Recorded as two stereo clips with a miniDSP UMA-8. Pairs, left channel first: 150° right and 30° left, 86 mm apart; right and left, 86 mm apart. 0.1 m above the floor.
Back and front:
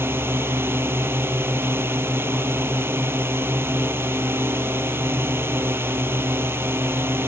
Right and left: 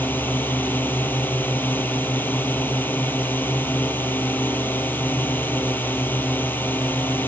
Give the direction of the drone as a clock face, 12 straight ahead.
1 o'clock.